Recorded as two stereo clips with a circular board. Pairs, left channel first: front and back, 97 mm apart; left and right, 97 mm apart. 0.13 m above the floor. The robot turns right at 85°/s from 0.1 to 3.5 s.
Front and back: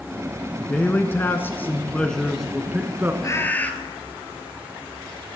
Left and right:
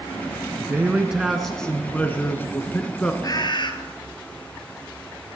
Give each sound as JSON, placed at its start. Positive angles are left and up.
{"t": 0.6, "sound": "a man speaking", "azimuth_deg": -65, "distance_m": 1.1}
{"t": 3.2, "sound": "a bird", "azimuth_deg": 45, "distance_m": 1.4}